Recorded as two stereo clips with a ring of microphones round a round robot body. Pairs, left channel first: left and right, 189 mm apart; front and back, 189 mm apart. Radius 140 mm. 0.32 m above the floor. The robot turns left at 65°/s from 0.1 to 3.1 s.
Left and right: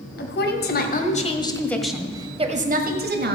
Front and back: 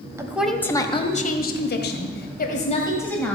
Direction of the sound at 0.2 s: 110° left.